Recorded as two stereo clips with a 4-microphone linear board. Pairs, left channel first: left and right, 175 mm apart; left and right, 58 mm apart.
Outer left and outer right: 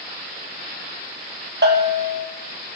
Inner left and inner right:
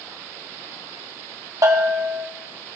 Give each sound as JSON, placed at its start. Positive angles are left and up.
{"t": 1.6, "sound": "a bell", "side_deg": -75, "distance_m": 1.7}